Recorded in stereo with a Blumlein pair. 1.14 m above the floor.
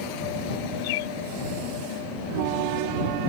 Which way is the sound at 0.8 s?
50° left.